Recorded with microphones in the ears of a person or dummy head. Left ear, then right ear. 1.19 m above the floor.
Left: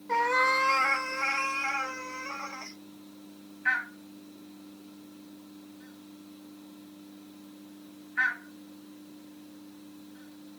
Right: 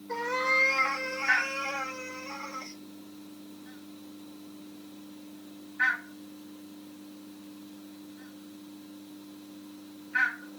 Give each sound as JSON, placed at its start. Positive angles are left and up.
{"t": 0.1, "sound": "a cat meowing", "side_deg": 45, "distance_m": 0.7}